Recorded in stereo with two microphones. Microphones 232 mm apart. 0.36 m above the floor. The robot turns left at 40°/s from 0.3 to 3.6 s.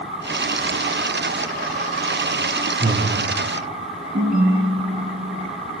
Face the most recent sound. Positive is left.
turn(degrees=-40)  # may be behind; listen again after turning